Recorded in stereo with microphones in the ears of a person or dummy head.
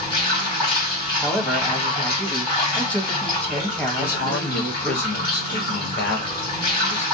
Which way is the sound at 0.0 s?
30° left (ahead or behind).